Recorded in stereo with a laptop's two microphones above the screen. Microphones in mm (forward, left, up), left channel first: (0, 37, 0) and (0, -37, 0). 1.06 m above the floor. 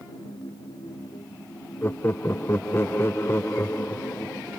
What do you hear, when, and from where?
0.0 s a machine running: 65° left (ahead or behind)
1.8 s laughter: 30° left (ahead or behind)